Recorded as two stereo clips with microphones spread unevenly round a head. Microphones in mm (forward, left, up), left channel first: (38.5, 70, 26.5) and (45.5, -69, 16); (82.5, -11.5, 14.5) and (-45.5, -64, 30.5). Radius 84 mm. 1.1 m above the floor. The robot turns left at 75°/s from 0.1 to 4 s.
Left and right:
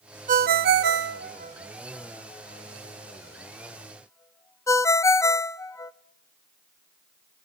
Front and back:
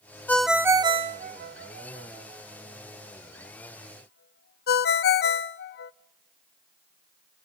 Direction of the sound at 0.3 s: 55° right.